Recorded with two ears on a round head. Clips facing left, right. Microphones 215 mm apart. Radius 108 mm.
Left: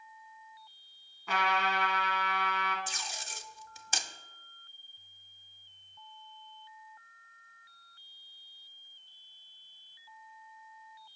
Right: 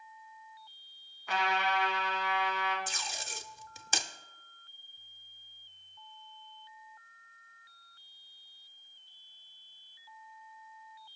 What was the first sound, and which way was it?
A trumpet, 75° left (ahead or behind).